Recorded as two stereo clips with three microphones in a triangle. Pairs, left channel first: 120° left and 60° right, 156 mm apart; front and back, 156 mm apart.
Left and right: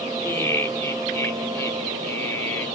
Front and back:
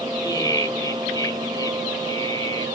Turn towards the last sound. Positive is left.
turn(degrees=50)